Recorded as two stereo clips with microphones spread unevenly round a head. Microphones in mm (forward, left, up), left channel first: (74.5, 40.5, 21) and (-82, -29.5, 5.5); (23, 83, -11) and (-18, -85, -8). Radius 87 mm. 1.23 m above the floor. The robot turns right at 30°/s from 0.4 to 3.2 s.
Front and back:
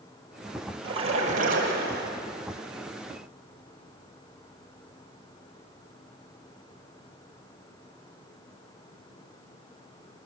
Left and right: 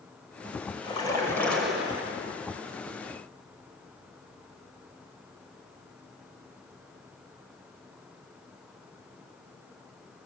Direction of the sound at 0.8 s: 140° left.